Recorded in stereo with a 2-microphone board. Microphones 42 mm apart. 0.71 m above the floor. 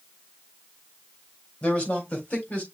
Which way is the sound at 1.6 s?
35° left (ahead or behind).